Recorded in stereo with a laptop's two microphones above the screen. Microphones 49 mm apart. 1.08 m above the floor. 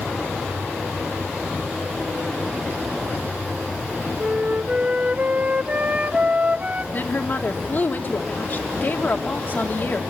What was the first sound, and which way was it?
A flute, 30° right (ahead or behind).